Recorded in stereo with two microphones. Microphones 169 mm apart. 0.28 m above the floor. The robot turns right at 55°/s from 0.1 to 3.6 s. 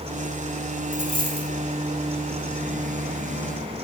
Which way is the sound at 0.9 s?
145° right.